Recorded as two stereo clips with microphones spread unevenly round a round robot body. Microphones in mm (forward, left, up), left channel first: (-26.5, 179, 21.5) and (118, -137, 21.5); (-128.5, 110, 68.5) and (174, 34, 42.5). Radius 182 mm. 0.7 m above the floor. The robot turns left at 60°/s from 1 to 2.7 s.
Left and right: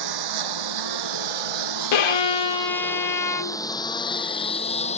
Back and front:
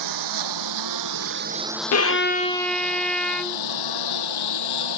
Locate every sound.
0.0 s a lawn mower: 50° right; by 5.0 s 175° right
1.9 s a violin: 125° left; by 3.6 s 80° left